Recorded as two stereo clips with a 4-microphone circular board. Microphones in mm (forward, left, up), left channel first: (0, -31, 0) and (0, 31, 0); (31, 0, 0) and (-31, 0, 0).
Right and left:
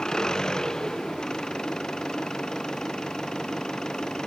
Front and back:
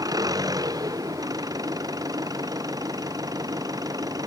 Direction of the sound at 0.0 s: 170° right.